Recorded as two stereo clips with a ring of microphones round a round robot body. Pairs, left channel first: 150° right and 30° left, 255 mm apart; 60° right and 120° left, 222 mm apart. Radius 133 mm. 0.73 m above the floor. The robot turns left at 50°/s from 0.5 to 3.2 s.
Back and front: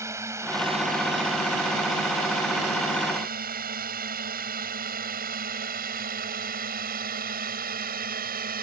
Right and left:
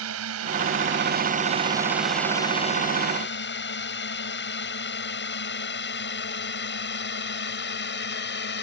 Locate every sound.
0.0 s a drone: 110° left; by 8.6 s 25° right